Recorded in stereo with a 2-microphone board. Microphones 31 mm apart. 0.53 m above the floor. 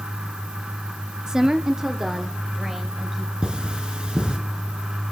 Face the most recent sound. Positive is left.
turn(degrees=-35)  # may be behind; listen again after turning